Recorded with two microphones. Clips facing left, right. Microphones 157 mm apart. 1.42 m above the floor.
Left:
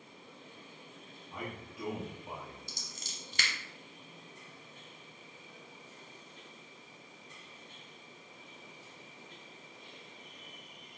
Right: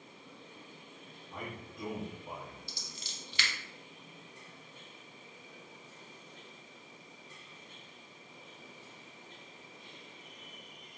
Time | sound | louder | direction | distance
1.3 | a man speaking | left 1 dB | 5° left (ahead or behind) | 1.0 m
2.7 | scissors | even | 45° left (ahead or behind) | 0.9 m